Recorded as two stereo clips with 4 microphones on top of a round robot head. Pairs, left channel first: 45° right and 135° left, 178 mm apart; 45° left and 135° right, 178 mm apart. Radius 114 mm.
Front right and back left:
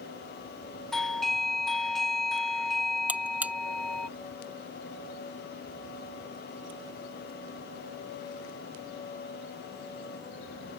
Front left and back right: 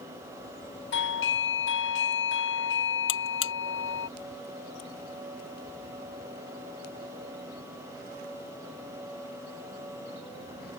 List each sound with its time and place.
0.9 s a doorbell: 45° left
3.1 s a buzzer: 55° left